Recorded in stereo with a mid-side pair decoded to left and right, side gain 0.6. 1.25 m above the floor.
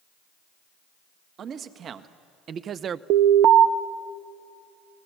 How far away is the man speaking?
About 1.6 m.